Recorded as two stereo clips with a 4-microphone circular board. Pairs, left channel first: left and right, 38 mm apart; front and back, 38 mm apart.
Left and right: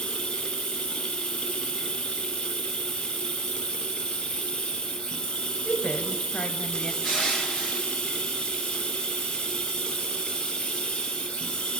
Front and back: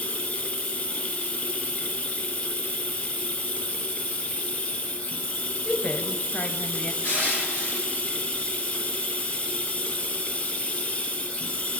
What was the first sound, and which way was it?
Running water, 40° left.